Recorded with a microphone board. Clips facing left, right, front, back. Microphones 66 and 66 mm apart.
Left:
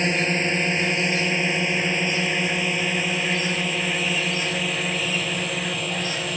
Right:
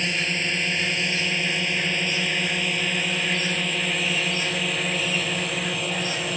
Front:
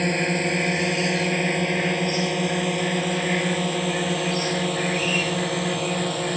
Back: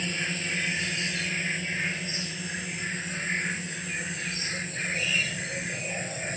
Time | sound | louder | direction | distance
0.0 | a drone | left 4 dB, front 9 dB | 30° left | ?